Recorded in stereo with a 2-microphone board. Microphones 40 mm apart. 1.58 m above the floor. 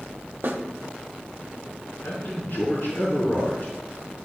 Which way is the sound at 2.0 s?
55° left (ahead or behind).